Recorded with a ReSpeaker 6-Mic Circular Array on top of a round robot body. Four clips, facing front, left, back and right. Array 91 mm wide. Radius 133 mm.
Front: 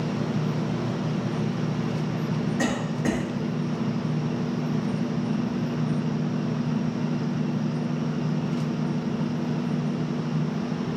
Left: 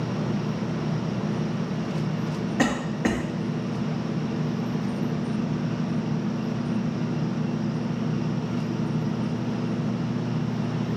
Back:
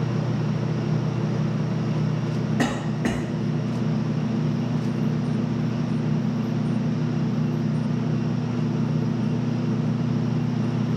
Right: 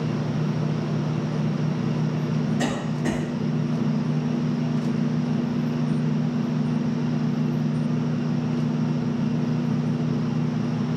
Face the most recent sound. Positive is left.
turn(degrees=110)